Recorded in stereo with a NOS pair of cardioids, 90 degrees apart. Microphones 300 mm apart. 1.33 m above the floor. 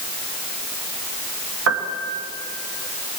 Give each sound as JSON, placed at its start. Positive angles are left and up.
{"t": 1.7, "sound": "a piano", "azimuth_deg": -55, "distance_m": 2.0}